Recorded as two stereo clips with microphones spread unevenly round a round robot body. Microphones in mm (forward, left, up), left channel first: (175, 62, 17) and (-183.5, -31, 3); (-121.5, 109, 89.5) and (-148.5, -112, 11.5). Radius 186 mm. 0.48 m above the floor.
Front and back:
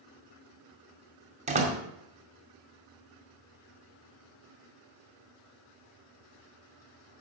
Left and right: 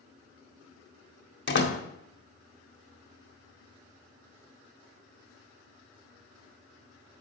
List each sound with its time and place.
1.5 s a door slam: 125° left, 1.8 m